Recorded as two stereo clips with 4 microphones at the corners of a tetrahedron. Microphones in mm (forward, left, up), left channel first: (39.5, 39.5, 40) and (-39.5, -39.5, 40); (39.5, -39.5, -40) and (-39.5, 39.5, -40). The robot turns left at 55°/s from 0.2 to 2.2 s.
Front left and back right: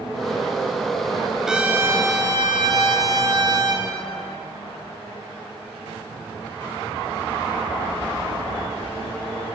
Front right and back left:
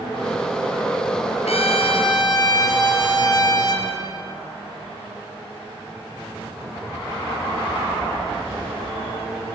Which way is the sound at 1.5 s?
50° right.